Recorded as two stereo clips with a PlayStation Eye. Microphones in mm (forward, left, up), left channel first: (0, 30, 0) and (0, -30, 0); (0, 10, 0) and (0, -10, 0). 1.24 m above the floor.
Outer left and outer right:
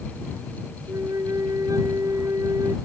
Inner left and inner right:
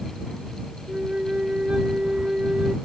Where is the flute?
85° right.